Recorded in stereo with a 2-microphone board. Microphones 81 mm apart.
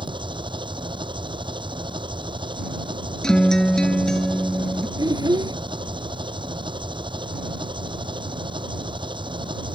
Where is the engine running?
85° right.